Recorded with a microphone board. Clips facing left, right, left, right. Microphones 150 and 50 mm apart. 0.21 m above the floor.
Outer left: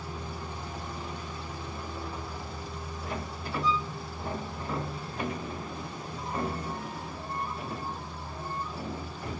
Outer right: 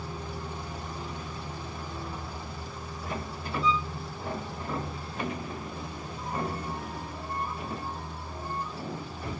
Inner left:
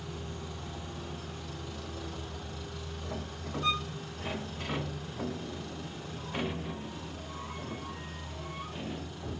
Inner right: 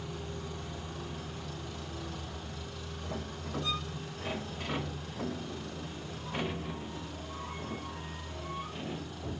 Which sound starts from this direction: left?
A violin, at 3.6 s.